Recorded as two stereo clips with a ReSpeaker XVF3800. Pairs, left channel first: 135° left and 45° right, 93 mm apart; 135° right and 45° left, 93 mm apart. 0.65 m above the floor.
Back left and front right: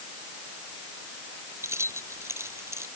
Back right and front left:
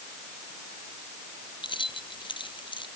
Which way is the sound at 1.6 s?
105° right.